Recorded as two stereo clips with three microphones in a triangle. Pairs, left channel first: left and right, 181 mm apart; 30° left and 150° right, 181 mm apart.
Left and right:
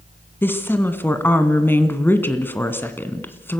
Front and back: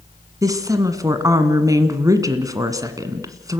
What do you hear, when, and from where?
0.4 s a woman speaking: 160° left, 1.6 m